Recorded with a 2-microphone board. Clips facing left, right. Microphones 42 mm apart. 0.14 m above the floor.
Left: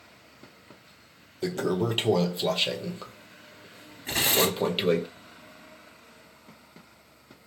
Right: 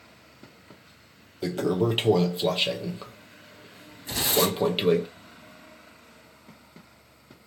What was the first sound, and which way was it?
A toilet flushing, 5° right (ahead or behind).